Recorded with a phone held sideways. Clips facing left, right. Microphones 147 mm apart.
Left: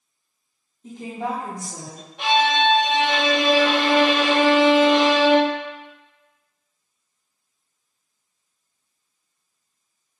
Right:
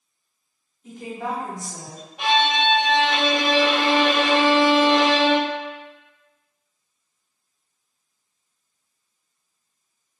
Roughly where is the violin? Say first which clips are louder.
Left 2 dB; centre.